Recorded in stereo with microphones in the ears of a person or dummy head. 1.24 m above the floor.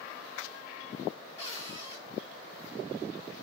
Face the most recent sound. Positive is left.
turn(degrees=30)  # may be behind; listen again after turning